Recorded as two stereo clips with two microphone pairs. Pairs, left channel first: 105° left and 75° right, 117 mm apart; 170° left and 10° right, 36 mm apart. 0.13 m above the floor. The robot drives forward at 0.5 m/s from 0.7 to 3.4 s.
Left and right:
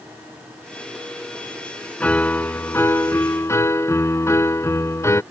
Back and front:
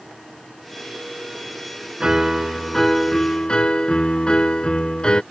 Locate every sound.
2.0 s a piano: 40° left; by 5.2 s 140° left